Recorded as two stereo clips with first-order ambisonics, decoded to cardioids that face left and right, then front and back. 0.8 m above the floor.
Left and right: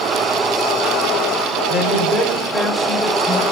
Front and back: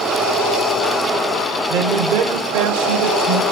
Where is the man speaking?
145° left, 2.5 m; by 3.4 s 175° right, 3.5 m.